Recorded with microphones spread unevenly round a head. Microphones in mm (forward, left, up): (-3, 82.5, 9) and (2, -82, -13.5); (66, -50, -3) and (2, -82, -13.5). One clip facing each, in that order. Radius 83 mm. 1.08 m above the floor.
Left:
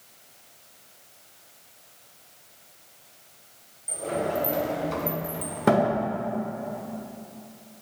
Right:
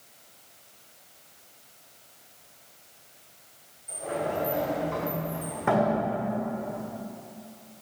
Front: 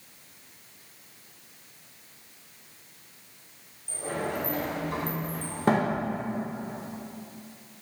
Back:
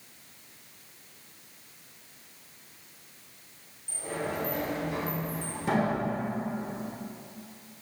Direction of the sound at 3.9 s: 65° left.